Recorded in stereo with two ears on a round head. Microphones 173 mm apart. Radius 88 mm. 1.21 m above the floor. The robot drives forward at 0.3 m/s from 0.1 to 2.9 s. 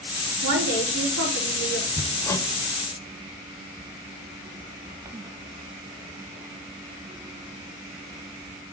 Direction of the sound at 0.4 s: 75° right (ahead or behind).